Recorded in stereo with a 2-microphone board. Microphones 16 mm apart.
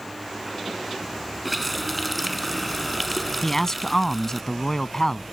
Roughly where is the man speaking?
Left.